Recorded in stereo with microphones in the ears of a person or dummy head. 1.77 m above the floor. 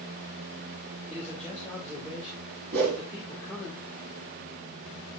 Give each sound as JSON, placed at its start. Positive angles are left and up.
{"t": 1.1, "sound": "a man speaking", "side_deg": 10, "distance_m": 2.5}
{"t": 2.7, "sound": "a whoosh", "side_deg": -45, "distance_m": 1.9}